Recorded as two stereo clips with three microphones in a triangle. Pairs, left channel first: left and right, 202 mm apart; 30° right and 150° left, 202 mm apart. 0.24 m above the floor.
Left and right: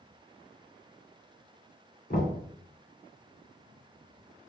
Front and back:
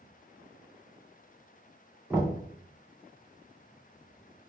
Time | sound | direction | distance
2.1 | knocking | 70° left | 2 m